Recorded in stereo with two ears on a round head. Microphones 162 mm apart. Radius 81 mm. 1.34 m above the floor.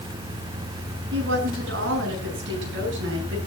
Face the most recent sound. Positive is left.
turn(degrees=-70)  # may be behind; listen again after turning